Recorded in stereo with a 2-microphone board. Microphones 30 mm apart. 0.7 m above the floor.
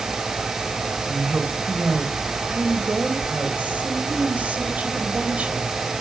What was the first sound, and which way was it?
A woman speaking, 50° right (ahead or behind).